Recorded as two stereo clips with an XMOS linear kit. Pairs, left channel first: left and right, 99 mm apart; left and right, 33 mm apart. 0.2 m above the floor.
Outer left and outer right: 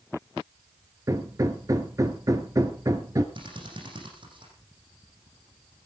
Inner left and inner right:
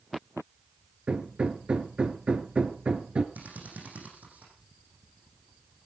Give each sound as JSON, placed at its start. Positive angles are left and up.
{"t": 1.1, "sound": "hammering", "side_deg": -35, "distance_m": 1.6}
{"t": 3.4, "sound": "a drill", "side_deg": -55, "distance_m": 9.0}